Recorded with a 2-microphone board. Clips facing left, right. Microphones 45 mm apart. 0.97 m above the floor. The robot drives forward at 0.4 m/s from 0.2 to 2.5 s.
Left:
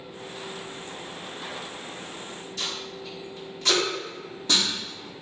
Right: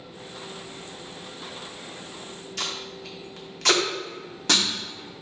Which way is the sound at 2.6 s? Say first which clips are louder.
Right 1 dB; 65° right (ahead or behind).